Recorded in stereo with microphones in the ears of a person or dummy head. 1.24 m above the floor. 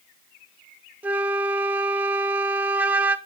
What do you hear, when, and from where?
1.0 s a flute: 10° right (ahead or behind), 0.6 m